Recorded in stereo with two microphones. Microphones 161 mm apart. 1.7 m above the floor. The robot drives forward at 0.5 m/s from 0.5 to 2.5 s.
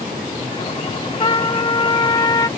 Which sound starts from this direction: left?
A trumpet, at 1.2 s.